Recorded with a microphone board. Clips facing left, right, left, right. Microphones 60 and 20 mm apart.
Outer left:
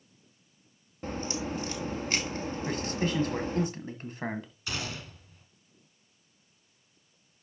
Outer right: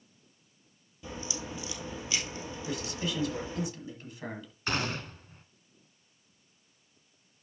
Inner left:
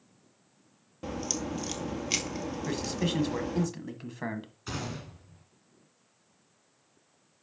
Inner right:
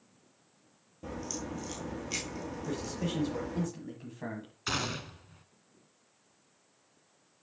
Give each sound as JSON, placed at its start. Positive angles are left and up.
{"t": 1.0, "sound": "a crack", "side_deg": 45, "distance_m": 1.8}
{"t": 2.7, "sound": "a man speaking", "side_deg": 45, "distance_m": 1.5}
{"t": 4.7, "sound": "a gunshot", "side_deg": -45, "distance_m": 1.1}